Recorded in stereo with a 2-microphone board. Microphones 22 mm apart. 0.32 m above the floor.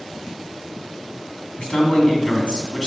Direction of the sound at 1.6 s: 55° left (ahead or behind).